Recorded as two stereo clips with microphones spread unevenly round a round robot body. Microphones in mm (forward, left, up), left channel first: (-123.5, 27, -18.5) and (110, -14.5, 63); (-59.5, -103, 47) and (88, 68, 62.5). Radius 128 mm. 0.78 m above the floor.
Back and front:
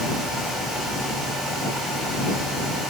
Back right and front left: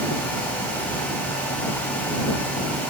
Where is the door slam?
I don't hear a door slam.